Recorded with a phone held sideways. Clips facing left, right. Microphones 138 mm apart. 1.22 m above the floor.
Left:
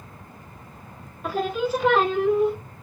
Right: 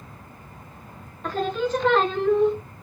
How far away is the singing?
About 0.5 m.